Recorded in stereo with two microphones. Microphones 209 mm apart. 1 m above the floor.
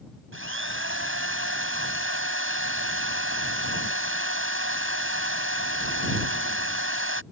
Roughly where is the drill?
Right.